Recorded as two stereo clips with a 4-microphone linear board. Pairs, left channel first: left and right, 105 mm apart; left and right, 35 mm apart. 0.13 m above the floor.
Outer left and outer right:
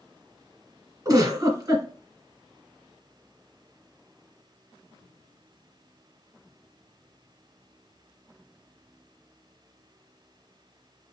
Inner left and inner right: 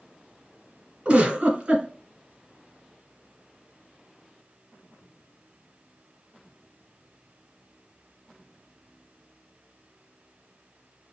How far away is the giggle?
About 2 m.